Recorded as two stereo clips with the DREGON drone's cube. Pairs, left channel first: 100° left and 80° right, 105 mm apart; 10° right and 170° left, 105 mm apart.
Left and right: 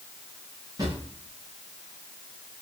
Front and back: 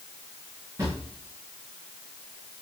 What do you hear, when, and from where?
0.8 s a drawer: 130° right, 10 m